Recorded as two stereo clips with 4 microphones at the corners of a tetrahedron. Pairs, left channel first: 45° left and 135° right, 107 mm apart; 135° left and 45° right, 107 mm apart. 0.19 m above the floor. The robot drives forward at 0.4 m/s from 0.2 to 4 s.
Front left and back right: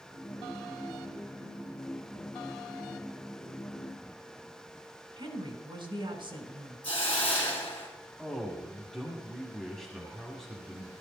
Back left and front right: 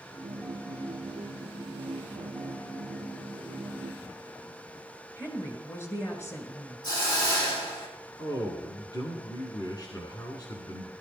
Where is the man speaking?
130° left, 1.8 m.